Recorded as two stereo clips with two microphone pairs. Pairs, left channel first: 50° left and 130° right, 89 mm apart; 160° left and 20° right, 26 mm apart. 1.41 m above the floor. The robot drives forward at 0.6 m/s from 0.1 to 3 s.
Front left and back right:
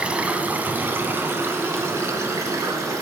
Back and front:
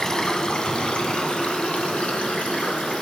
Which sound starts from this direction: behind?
Running water, at 0.0 s.